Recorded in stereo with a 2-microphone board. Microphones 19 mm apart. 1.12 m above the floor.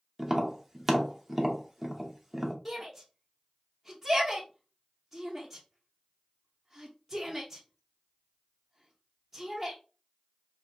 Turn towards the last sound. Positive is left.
turn(degrees=-5)  # may be behind; listen again after turning